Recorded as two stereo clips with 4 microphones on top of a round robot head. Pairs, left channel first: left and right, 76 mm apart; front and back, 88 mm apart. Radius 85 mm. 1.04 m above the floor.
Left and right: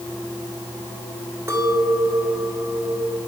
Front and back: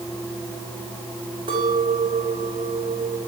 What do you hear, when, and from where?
1.5 s a clink: 145° right, 3.5 m